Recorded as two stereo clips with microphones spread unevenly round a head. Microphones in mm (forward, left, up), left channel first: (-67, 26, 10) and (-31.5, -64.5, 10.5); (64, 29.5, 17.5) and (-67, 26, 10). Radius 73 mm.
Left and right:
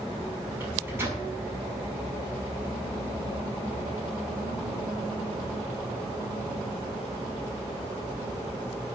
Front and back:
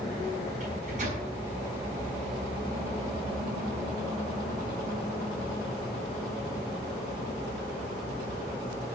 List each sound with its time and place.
0.6 s a microwave: 135° right, 7 m